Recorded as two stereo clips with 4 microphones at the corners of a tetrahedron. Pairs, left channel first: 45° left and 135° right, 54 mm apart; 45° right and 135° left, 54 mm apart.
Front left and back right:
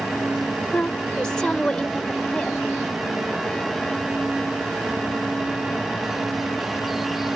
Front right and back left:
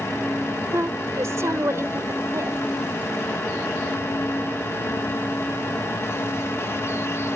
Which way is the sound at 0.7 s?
115° left.